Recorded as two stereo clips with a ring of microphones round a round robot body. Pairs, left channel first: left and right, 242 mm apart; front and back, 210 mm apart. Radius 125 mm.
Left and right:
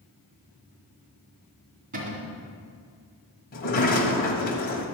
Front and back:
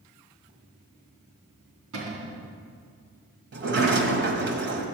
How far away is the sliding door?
About 1.5 m.